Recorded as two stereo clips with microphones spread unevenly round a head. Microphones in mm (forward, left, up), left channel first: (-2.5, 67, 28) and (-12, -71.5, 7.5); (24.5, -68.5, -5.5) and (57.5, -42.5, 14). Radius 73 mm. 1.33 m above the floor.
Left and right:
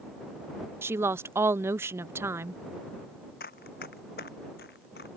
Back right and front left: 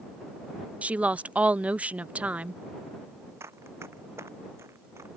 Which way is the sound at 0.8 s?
35° right.